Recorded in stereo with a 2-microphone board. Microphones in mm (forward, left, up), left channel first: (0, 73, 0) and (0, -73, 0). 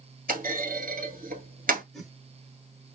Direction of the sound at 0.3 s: 75° right (ahead or behind).